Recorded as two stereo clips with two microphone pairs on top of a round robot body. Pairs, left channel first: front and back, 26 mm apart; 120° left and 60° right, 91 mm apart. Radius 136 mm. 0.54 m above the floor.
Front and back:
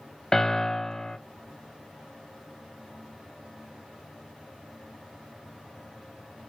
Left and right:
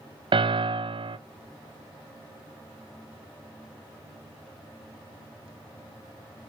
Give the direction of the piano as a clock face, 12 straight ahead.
2 o'clock.